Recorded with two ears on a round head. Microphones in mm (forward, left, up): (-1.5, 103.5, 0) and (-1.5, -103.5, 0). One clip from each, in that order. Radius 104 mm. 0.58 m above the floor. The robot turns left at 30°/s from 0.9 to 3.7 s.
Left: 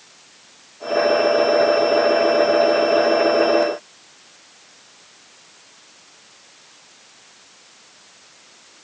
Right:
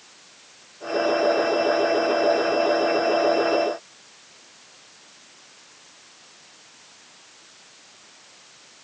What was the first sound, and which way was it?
Only background noise.